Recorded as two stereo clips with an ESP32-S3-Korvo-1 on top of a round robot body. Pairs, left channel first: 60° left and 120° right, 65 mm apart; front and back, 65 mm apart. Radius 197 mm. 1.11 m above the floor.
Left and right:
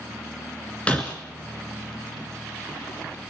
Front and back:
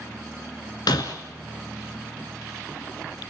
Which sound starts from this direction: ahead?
Breaking glass, at 0.9 s.